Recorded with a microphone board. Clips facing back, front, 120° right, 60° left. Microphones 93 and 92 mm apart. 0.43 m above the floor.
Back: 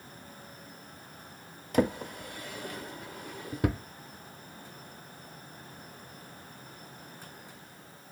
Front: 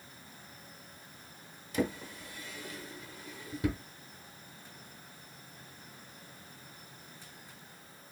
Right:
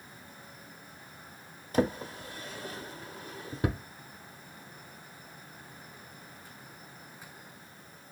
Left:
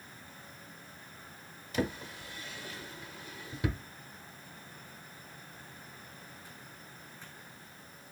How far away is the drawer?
About 0.5 m.